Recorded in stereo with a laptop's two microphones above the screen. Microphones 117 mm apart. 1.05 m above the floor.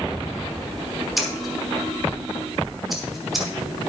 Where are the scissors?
Centre (ahead or behind), 1.4 m.